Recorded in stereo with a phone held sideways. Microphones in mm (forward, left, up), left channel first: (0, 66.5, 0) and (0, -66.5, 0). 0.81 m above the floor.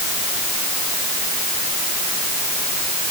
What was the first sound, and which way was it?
Only background noise.